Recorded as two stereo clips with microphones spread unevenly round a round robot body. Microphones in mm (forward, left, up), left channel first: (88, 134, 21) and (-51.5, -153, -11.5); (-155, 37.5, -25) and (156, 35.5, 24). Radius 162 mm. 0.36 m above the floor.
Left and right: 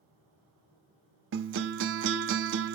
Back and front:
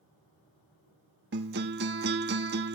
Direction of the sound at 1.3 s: 60° right.